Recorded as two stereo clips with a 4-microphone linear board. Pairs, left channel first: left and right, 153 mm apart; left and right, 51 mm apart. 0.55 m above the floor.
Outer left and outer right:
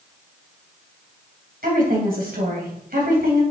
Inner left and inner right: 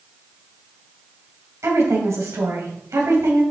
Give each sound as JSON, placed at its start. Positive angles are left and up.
{"t": 1.6, "sound": "a woman speaking", "side_deg": -70, "distance_m": 3.0}